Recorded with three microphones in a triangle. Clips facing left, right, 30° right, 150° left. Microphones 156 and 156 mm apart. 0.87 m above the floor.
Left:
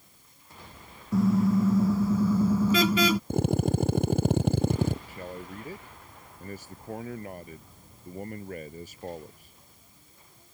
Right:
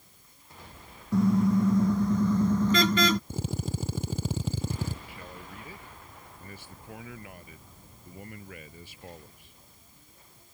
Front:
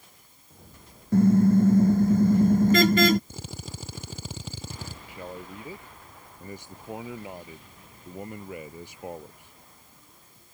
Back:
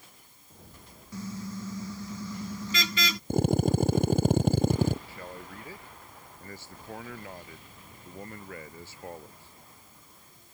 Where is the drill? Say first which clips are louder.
Left 8 dB, back 16 dB; 115° left.